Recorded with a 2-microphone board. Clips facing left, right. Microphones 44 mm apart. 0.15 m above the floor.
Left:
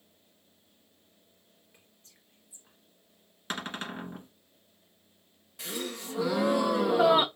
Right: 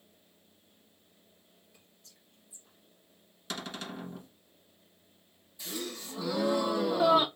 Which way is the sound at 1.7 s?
40° left (ahead or behind).